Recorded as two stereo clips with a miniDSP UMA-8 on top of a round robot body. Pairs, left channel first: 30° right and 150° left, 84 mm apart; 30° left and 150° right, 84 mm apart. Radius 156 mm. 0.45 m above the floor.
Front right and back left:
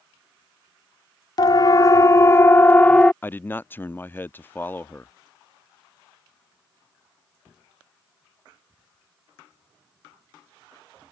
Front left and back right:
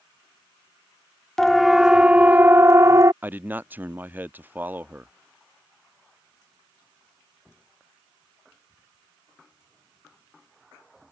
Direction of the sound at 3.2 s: 90° right.